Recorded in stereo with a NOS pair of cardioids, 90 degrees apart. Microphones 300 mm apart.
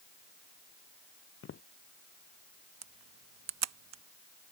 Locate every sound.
1.4 s footsteps: 45° left
2.8 s a camera shutter: 60° right